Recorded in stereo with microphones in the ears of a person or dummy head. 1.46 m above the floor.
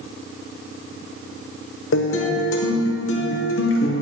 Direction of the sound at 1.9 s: 70° left (ahead or behind).